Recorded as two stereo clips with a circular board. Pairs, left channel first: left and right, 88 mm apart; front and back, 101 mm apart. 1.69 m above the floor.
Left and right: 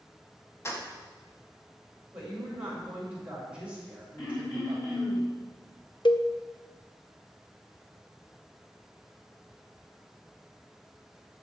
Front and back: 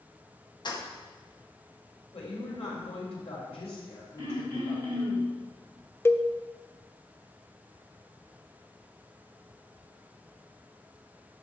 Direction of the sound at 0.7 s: 35° left.